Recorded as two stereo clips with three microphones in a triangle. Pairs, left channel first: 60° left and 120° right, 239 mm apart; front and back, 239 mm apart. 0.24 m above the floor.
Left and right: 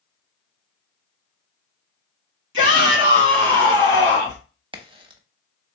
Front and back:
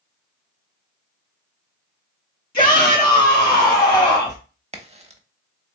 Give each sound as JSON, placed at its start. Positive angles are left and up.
{"t": 2.5, "sound": "a shout", "azimuth_deg": -60, "distance_m": 2.5}
{"t": 4.7, "sound": "a crack", "azimuth_deg": -160, "distance_m": 0.6}